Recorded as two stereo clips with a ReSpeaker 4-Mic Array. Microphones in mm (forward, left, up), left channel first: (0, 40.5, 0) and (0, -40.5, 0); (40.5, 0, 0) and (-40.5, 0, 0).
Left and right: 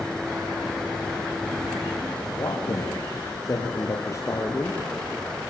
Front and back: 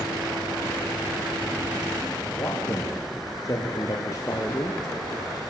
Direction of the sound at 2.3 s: 50° left.